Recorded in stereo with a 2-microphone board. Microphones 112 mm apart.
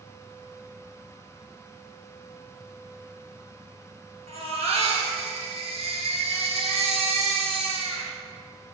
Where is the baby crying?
70° right (ahead or behind), 2 m.